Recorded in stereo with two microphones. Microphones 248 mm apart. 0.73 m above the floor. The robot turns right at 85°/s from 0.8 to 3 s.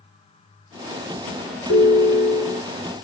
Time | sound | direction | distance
1.7 | a ringtone | 70° left | 1.5 m